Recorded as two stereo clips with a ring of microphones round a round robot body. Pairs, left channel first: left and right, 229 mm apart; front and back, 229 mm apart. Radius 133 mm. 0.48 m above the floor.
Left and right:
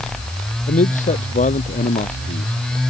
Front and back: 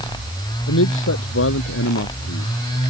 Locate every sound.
0.7 s a man speaking: 30° left